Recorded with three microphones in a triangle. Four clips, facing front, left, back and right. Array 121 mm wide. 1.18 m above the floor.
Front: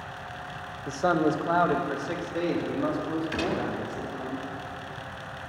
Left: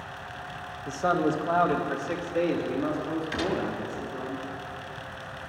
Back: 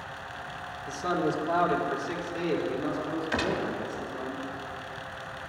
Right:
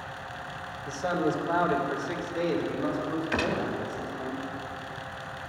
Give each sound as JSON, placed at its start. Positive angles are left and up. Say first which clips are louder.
{"t": 0.9, "sound": "a man speaking", "louder": "left 3 dB, front 4 dB", "azimuth_deg": 35, "distance_m": 0.8}
{"t": 3.3, "sound": "a gunshot", "louder": "even, back 3 dB", "azimuth_deg": -130, "distance_m": 1.1}